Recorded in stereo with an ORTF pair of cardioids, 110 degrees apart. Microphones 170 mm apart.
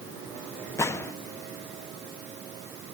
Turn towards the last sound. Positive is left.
turn(degrees=15)